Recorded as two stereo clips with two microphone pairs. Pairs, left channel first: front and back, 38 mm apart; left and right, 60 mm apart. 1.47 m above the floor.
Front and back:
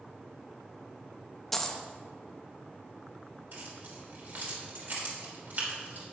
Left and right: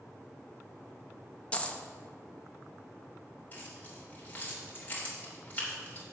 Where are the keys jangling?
150° left, 3 m.